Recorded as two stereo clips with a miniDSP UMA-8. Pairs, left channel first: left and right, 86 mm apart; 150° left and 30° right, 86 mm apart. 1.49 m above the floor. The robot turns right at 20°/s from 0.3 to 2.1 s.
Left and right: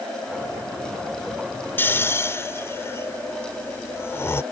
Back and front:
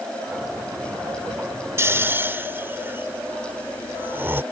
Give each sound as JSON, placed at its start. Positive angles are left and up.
{"t": 1.8, "sound": "snoring", "azimuth_deg": 25}